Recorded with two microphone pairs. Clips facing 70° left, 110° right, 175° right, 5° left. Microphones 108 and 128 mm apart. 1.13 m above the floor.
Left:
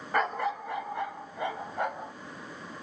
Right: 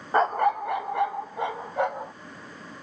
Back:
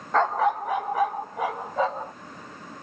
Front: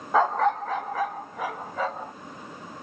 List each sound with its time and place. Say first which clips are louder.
0.1 s a dog barking: right 7 dB, even; 70° right, 0.5 m; by 2.1 s 110° right, 2.5 m